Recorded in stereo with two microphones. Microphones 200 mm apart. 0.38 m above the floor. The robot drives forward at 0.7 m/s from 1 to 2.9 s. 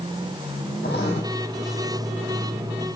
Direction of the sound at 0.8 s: 60° left (ahead or behind).